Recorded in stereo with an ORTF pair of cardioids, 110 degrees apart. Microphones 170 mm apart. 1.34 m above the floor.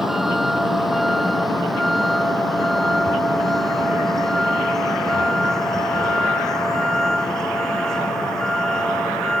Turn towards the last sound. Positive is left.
turn(degrees=5)